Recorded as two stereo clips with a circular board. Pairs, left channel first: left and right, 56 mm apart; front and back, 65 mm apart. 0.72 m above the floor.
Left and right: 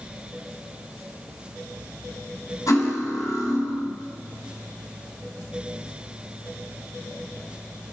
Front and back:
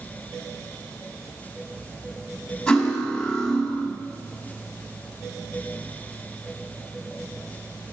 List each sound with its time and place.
2.7 s cutlery clinking: 80° left, 2.5 m